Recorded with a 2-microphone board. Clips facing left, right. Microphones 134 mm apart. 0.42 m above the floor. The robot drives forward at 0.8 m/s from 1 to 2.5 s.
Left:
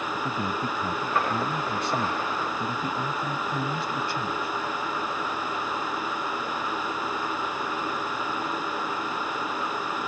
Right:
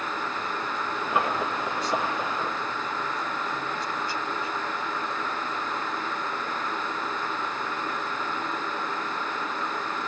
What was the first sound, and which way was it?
A man speaking, 65° left (ahead or behind).